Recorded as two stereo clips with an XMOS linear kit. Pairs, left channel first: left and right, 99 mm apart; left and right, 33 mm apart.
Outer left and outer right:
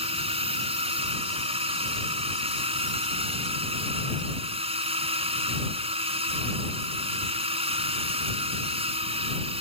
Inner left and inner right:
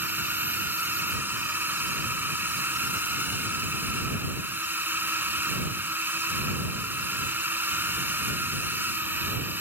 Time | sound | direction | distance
0.0 | a drone | 80° right | ?